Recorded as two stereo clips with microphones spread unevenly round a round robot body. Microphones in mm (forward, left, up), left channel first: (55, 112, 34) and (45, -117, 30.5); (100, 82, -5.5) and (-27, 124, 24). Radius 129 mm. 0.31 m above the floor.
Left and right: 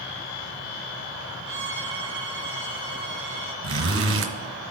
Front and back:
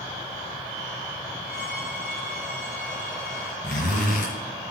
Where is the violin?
100° right, 1.0 m.